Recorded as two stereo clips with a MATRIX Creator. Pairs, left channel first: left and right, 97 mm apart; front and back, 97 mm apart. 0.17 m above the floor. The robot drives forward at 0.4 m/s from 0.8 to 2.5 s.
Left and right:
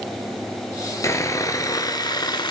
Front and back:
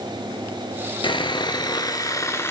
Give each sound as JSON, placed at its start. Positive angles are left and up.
{"t": 1.0, "sound": "sawing", "azimuth_deg": 30, "distance_m": 1.1}